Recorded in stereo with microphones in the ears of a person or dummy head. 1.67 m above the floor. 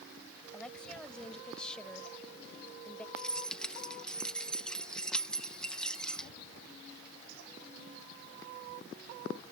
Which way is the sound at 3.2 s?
5° left (ahead or behind).